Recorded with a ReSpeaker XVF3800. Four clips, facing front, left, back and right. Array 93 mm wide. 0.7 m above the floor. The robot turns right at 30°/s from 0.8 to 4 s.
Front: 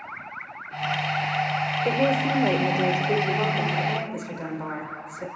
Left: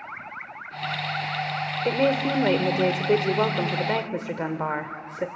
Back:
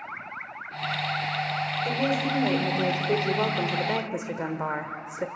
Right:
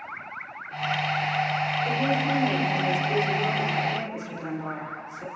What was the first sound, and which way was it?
A woman speaking, 50° left.